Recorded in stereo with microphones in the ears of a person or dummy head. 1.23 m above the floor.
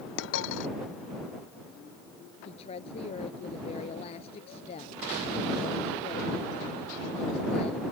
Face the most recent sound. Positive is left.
turn(degrees=30)  # may be behind; listen again after turning